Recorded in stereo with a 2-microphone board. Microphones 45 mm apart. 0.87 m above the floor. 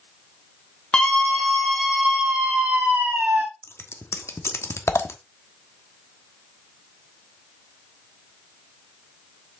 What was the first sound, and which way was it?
A scream, 20° left (ahead or behind).